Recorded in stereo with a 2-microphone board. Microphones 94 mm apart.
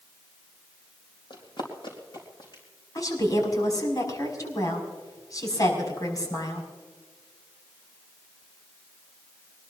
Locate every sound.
1.3 s running footsteps: 60° left (ahead or behind), 3.5 m; by 2.6 s 55° left (ahead or behind), 4.5 m
3.0 s a woman speaking: 40° left (ahead or behind), 5.5 m